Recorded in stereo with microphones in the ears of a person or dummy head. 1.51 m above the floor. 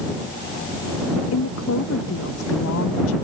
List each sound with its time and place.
1.3 s a woman speaking: 85° left